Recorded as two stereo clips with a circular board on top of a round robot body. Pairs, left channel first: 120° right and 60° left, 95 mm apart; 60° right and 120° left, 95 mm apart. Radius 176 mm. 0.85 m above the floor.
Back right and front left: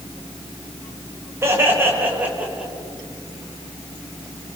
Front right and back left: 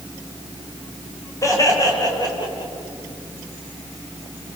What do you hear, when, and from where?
1.4 s laughter: 5° right, 6 m; by 2.7 s 20° right, 5 m